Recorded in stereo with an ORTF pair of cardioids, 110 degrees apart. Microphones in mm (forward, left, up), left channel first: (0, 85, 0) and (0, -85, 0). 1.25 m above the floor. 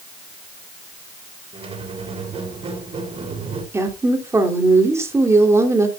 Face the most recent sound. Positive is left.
turn(degrees=-15)